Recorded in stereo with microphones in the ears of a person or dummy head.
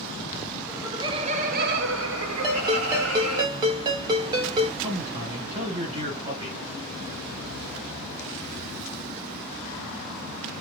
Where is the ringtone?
20° right (ahead or behind), 0.7 m.